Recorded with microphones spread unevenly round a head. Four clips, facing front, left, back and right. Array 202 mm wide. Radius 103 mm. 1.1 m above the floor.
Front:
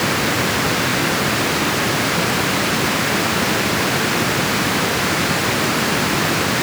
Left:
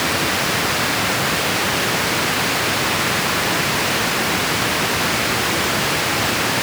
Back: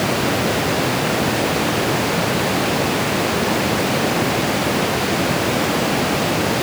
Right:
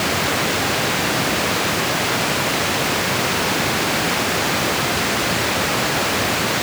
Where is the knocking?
I don't hear knocking.